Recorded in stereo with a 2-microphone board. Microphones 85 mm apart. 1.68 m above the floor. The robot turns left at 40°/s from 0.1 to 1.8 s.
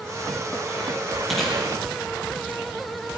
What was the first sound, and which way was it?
Chewing, centre (ahead or behind).